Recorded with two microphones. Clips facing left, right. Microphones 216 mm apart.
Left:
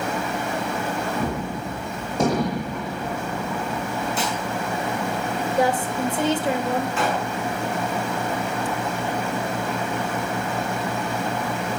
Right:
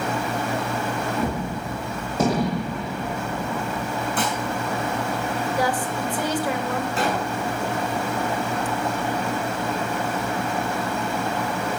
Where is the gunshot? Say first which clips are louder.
Even; 5° right (ahead or behind), 6 m.